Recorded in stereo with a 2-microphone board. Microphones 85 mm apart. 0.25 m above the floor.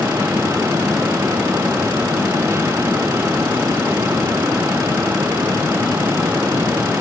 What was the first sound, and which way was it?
Only background noise.